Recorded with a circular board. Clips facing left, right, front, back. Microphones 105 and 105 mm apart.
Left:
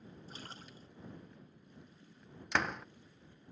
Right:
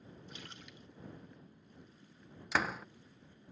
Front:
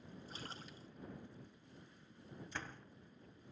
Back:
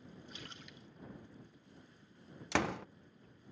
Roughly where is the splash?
Ahead left.